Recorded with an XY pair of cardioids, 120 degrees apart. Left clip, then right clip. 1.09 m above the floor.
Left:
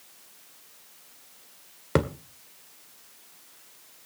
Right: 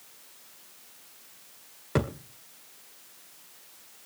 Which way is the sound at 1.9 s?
40° left.